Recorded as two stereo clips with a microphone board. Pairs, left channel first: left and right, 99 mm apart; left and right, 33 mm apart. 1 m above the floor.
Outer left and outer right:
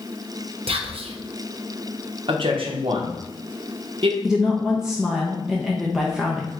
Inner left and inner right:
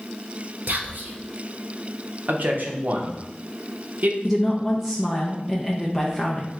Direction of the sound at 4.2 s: 5° right (ahead or behind).